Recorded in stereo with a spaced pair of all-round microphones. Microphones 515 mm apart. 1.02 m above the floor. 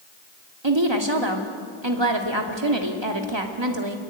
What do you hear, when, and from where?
0.6 s a woman speaking: 50° right (ahead or behind), 3 m